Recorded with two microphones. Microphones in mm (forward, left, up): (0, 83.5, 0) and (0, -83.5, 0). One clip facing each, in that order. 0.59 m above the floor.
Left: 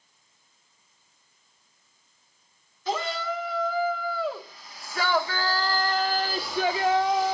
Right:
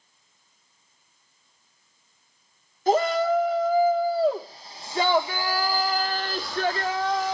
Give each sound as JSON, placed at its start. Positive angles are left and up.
{"t": 2.9, "sound": "a shout", "side_deg": -45, "distance_m": 1.8}